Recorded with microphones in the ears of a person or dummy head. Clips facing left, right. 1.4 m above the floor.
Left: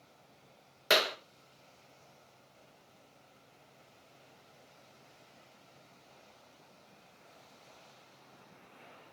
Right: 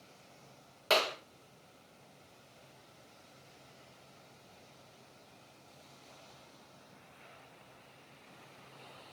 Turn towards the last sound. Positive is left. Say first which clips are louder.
# left 1 dB
turn(degrees=25)  # may be behind; listen again after turning